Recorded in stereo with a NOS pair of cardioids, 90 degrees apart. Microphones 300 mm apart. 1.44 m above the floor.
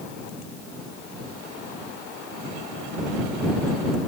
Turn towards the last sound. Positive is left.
No sound to turn to.